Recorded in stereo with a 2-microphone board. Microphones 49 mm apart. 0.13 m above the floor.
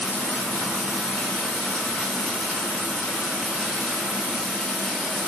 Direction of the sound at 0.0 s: 20° left (ahead or behind).